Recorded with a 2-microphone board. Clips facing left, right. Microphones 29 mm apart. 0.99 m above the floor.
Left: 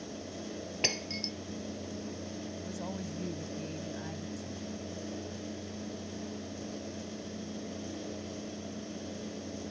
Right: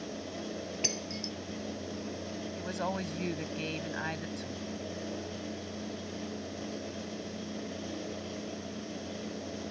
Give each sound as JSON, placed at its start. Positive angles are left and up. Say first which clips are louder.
{"t": 0.8, "sound": "breaking glass", "louder": "left 5 dB", "side_deg": 35}
{"t": 2.6, "sound": "a woman speaking", "louder": "right 8 dB", "side_deg": -75}